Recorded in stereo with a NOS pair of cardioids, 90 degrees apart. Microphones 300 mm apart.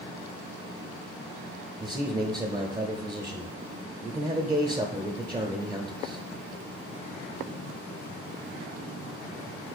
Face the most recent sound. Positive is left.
turn(degrees=-20)